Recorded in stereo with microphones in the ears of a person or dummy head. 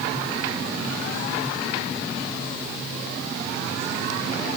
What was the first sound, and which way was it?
Only background noise.